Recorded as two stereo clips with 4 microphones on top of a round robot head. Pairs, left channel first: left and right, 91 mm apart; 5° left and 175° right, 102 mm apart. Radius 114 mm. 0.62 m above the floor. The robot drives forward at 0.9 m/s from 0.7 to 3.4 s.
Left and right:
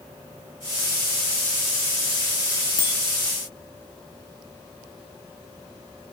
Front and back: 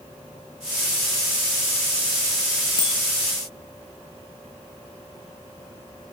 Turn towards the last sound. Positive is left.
turn(degrees=50)